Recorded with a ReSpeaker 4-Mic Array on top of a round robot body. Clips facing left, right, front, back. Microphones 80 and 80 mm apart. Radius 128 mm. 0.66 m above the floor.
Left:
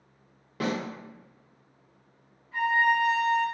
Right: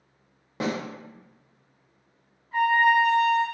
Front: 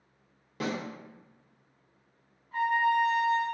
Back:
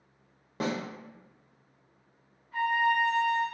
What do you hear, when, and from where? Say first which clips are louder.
0.6 s a snare drum: right 1 dB, back 2 dB; 145° right, 1.1 m
2.5 s a trumpet: right 4 dB, front 1 dB; 50° right, 1.6 m